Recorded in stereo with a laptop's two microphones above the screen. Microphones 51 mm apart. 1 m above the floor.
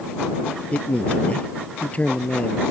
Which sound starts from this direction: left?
A man speaking, at 0.7 s.